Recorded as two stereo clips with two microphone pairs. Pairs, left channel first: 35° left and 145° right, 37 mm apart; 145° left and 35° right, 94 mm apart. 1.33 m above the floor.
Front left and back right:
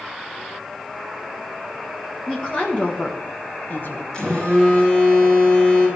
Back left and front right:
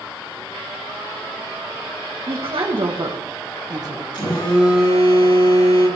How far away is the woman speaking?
About 1.6 m.